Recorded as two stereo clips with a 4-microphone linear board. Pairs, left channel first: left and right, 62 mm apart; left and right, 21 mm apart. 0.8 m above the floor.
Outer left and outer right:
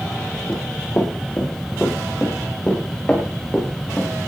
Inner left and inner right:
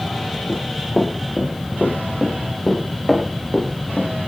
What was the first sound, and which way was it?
Running footsteps, 35° left (ahead or behind).